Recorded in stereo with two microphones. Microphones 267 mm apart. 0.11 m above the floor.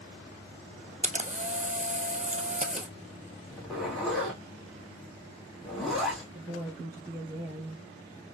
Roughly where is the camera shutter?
Right.